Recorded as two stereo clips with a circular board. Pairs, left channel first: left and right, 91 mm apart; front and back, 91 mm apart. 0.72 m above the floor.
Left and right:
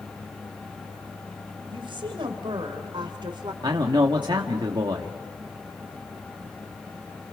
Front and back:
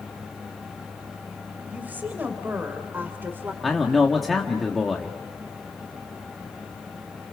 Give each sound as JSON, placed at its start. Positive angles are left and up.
{"t": 1.7, "sound": "a woman speaking", "azimuth_deg": -110, "distance_m": 3.5}
{"t": 3.6, "sound": "a man speaking", "azimuth_deg": -90, "distance_m": 1.5}